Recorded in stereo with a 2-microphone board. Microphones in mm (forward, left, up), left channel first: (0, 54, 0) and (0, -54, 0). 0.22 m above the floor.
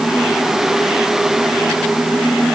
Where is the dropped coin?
No dropped coin in this recording.